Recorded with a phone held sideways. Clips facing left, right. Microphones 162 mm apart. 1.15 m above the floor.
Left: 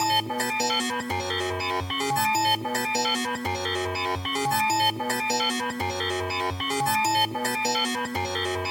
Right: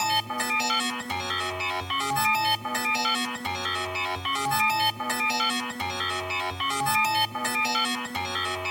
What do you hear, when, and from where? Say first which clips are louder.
0.0 s a machine running: left 3 dB; 45° left (ahead or behind), 1.1 m